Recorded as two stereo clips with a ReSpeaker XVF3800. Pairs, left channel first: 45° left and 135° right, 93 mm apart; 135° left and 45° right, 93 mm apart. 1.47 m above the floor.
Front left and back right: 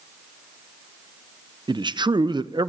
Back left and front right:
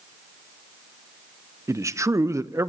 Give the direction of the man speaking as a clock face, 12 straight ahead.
3 o'clock.